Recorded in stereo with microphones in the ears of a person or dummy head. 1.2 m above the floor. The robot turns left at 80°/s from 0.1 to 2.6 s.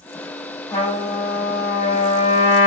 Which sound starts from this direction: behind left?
A trumpet, at 0.7 s.